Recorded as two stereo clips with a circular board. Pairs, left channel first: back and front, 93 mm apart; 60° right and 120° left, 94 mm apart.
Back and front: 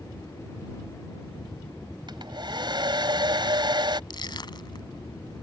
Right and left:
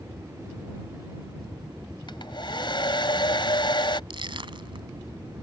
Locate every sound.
2.1 s a hair dryer: 35° right
4.1 s crushing: 145° left